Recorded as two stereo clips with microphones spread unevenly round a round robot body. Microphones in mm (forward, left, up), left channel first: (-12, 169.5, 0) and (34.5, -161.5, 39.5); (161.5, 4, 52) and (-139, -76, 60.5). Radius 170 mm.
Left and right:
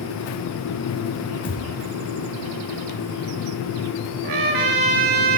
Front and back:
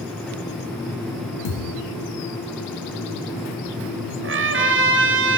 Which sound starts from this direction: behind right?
A trumpet, at 4.2 s.